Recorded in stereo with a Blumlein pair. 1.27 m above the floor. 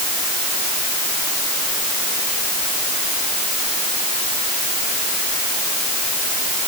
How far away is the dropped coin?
No dropped coin in this recording.